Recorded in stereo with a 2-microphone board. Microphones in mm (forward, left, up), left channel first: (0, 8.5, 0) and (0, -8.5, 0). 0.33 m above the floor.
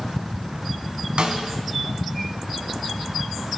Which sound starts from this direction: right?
A snare drum, at 1.2 s.